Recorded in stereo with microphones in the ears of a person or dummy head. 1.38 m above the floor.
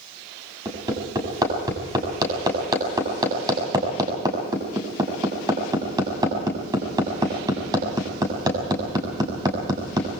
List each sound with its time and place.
0.7 s hammering: 20° right (ahead or behind), 7 m